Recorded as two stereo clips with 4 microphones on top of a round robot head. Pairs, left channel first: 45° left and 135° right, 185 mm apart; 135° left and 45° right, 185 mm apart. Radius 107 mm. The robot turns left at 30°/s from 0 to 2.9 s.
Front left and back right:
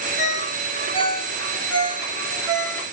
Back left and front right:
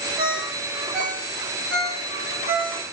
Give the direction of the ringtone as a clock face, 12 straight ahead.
12 o'clock.